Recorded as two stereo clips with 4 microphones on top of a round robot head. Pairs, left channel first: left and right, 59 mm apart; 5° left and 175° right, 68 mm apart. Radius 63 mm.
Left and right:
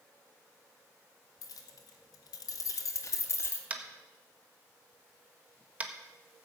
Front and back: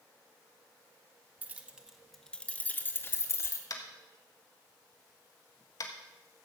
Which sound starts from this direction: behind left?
Keys jangling, at 1.4 s.